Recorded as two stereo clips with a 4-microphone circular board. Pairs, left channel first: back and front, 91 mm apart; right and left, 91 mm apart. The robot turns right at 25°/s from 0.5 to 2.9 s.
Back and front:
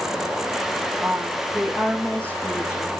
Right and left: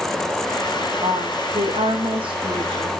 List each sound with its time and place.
1.0 s a woman speaking: 75° left, 5.5 m; by 2.9 s 125° left, 5.5 m